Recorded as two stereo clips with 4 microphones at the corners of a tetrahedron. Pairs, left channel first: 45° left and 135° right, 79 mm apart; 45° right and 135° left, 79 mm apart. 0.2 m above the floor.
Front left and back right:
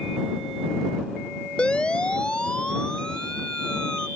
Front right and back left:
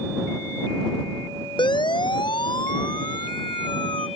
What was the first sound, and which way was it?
A siren, 30° right.